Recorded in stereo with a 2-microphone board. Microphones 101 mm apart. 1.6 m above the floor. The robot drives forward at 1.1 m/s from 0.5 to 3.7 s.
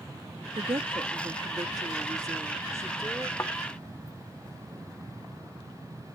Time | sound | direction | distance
0.6 | a woman speaking | 65° right (ahead or behind) | ?
3.4 | a thud | 25° left (ahead or behind) | ?